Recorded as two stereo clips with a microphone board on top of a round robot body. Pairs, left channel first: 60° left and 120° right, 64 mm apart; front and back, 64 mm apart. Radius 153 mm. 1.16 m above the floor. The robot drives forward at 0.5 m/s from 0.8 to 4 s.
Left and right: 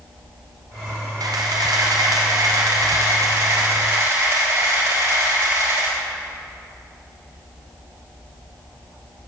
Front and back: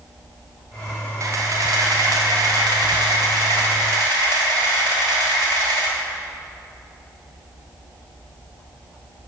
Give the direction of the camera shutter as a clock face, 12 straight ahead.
5 o'clock.